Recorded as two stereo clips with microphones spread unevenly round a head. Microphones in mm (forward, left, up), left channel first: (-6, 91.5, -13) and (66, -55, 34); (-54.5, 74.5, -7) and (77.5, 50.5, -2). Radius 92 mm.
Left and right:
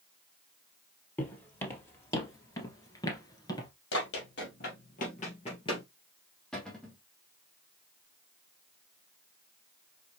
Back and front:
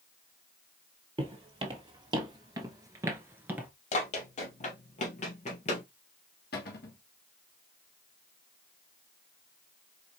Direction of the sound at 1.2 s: 30° left.